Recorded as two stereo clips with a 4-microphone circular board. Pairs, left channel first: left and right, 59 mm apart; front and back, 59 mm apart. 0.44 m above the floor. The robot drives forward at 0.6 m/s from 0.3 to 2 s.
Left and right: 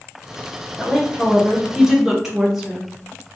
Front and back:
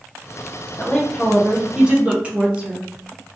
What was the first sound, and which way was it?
A woman speaking, 15° right.